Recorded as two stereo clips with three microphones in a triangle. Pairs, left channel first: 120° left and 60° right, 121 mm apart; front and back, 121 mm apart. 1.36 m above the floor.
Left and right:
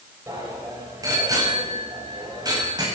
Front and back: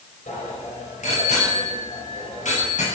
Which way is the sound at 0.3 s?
5° left.